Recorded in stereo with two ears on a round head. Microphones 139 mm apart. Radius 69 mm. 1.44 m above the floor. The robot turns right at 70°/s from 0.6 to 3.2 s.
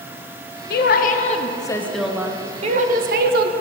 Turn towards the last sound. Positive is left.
turn(degrees=-95)